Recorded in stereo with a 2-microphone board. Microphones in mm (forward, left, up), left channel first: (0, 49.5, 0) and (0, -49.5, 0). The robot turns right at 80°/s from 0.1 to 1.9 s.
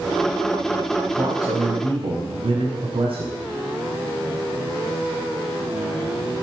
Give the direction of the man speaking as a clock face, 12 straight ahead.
5 o'clock.